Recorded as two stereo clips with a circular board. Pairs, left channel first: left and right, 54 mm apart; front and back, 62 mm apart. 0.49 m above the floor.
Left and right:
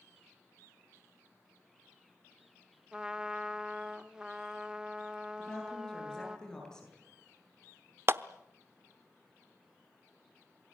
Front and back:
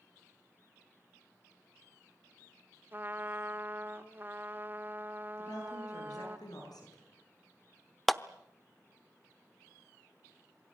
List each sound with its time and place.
2.9 s a trumpet: 155° right, 1.3 m
5.4 s a woman speaking: 10° left, 9 m
8.1 s a clap: 85° right, 0.7 m